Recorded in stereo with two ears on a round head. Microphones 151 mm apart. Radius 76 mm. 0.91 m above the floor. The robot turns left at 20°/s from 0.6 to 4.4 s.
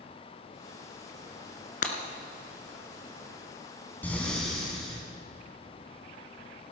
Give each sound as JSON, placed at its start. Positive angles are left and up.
{"t": 1.8, "sound": "breaking glass", "side_deg": 50, "distance_m": 1.5}
{"t": 4.0, "sound": "breathing", "side_deg": 10, "distance_m": 3.0}